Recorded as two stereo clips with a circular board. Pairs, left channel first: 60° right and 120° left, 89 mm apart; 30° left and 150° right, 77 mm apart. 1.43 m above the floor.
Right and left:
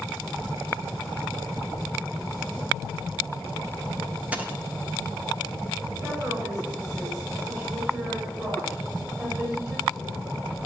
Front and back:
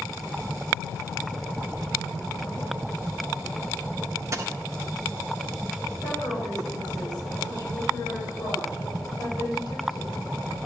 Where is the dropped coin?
175° right, 1.2 m.